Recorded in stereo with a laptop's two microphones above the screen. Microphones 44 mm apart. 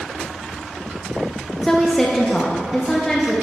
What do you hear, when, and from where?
1.6 s a woman speaking: 10° left (ahead or behind), 0.7 m